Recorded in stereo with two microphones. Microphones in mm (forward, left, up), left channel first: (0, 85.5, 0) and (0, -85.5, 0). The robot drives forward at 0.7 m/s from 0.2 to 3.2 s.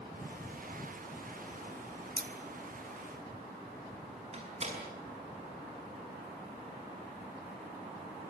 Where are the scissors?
70° right (ahead or behind), 1.9 m; by 2.3 s 65° right (ahead or behind), 2.0 m.